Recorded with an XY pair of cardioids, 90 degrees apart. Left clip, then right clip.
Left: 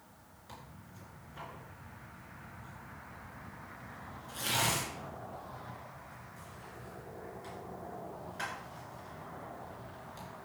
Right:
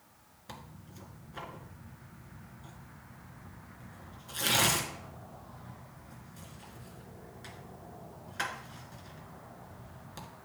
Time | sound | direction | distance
0.5 | tearing paper | 60° right | 1.7 m